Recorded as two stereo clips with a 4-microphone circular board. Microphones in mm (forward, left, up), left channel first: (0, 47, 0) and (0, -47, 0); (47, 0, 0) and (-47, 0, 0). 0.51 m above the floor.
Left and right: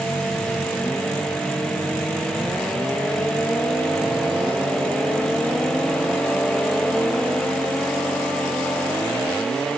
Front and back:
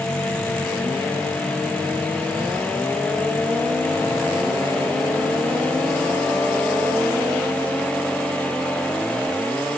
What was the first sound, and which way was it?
Only background noise.